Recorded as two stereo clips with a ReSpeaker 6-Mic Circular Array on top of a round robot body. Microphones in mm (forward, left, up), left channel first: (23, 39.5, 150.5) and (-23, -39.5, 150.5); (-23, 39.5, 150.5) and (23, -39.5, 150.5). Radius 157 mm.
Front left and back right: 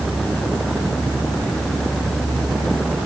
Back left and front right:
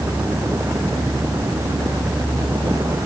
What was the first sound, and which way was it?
Only background noise.